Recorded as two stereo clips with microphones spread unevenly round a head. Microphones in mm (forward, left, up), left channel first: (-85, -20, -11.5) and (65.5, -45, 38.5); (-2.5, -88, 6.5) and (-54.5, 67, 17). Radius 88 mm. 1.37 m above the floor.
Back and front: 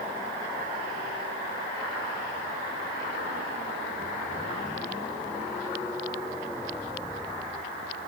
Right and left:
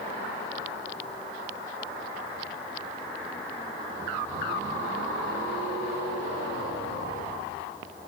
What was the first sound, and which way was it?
Only background noise.